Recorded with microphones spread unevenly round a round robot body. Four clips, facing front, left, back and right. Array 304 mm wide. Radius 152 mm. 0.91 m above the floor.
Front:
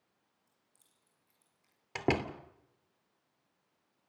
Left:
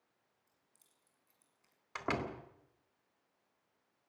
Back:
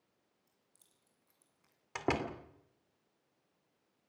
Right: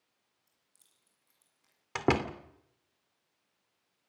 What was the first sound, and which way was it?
Keys jangling, 170° right.